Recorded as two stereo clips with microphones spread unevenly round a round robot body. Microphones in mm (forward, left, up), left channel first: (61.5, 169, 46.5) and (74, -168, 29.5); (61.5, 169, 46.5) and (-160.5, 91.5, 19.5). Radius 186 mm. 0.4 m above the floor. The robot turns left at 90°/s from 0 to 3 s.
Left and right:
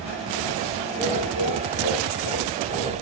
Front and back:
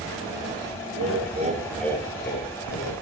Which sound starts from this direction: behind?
Laughter, at 0.9 s.